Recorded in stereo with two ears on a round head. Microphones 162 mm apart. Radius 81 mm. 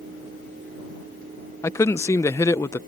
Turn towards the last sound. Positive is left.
turn(degrees=15)  # may be behind; listen again after turning